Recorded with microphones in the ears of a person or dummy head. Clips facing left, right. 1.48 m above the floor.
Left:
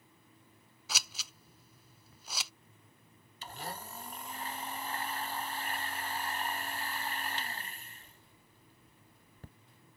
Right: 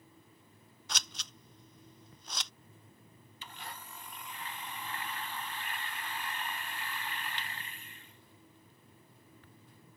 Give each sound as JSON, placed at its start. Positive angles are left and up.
{"t": 0.9, "sound": "scissors", "side_deg": 10}
{"t": 3.4, "sound": "a blender", "side_deg": 35}